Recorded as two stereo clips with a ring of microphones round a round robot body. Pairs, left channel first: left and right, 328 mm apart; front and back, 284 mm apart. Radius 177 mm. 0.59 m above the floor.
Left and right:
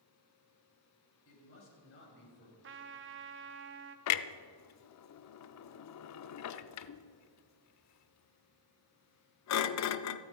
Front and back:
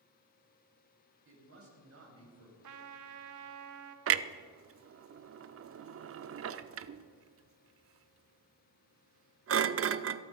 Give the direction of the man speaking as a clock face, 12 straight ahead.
7 o'clock.